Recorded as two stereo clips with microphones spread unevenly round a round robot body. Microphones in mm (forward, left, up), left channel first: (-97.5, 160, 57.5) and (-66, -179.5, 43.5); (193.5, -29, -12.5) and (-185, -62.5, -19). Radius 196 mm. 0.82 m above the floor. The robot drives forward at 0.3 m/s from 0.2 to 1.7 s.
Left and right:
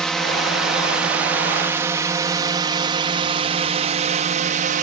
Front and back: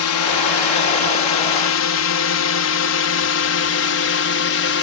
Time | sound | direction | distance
0.0 | a drone | 5° left | ?